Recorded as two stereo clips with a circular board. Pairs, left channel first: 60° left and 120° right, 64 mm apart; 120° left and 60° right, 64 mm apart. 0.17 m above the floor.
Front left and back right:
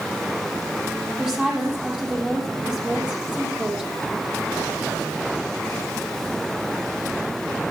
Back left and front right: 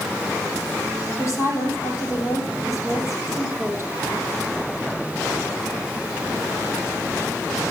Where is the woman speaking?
165° left, 5 m.